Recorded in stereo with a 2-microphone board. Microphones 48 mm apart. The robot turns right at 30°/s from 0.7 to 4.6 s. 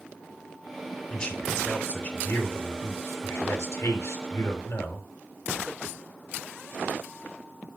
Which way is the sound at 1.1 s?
20° left.